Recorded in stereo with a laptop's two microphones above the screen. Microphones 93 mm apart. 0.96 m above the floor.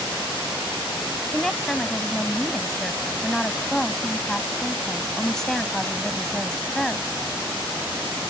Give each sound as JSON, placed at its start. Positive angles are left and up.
{"t": 1.3, "sound": "a woman speaking", "side_deg": 5}